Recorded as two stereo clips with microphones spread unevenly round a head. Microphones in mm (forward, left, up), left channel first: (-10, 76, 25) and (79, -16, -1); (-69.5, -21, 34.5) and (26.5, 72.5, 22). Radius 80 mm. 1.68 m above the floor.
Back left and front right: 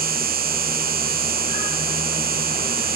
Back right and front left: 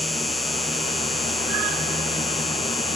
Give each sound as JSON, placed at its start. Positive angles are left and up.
{"t": 0.0, "sound": "an insect", "azimuth_deg": -45}